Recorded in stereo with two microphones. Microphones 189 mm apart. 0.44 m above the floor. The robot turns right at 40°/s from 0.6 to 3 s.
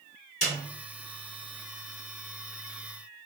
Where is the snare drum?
35° left (ahead or behind), 1.8 m.